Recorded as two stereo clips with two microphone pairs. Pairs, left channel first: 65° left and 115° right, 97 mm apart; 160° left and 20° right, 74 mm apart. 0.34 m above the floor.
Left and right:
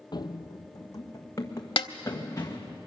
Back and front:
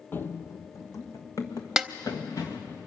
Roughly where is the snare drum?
Ahead left.